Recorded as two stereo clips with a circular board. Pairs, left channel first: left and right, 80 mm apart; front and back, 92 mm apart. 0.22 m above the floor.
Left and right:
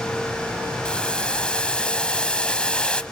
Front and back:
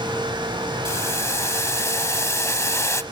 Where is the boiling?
20° left, 0.7 m.